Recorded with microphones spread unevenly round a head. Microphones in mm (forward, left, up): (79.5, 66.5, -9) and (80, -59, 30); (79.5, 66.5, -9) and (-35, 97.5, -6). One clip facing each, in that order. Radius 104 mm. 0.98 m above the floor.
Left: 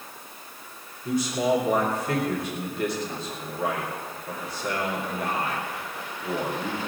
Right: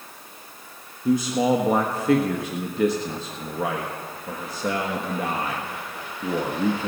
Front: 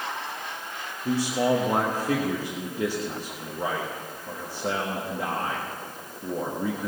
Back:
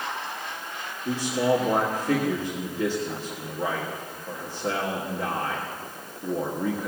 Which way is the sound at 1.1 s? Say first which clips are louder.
Right 4 dB, even; 85° right.